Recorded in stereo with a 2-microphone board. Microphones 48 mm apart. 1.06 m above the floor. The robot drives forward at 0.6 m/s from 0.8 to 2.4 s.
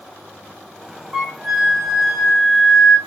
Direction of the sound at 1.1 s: 5° right (ahead or behind).